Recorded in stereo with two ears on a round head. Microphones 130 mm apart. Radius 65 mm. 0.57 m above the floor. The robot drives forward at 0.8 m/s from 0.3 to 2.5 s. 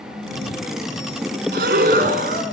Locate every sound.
1.5 s breathing: 80° right, 3 m; by 2.4 s 65° right (ahead or behind), 3.5 m